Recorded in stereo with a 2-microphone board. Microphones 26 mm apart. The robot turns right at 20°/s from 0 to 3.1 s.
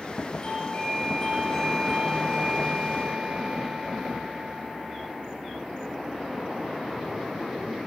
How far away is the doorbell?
About 3.5 m.